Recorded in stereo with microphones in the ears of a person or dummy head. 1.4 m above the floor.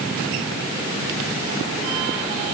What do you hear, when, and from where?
Only background noise.